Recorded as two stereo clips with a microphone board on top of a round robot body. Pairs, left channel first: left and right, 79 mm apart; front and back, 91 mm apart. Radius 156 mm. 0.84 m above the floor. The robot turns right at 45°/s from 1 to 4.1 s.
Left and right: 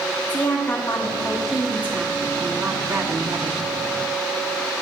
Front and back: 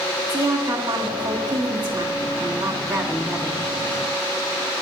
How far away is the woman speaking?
About 1.1 m.